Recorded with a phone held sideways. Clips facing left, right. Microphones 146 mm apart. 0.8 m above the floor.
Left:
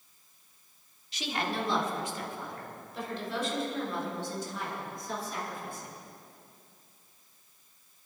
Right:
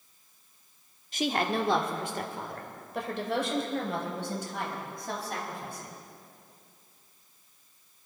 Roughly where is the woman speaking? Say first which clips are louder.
Right 5 dB; right.